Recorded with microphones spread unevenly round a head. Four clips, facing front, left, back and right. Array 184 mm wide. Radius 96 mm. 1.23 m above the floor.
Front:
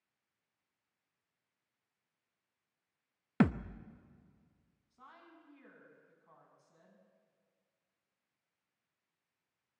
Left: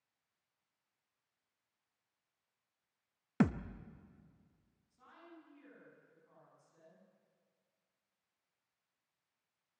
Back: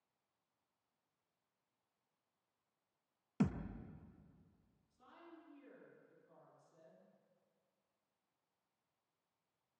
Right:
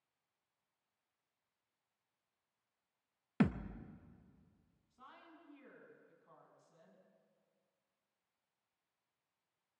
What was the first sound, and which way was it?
A thud, 30° left.